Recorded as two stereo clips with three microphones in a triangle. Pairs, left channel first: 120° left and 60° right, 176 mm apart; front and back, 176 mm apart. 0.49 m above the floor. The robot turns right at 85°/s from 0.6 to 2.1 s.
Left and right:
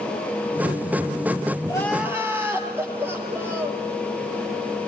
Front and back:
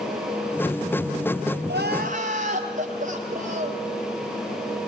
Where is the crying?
175° right, 4.5 m; by 3.8 s 135° right, 4.5 m.